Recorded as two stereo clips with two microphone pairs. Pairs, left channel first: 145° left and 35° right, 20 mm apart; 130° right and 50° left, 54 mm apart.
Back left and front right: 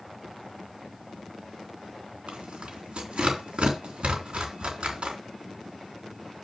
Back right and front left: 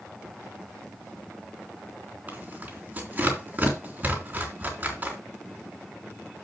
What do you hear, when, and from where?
2.3 s tearing paper: 5° right, 3.5 m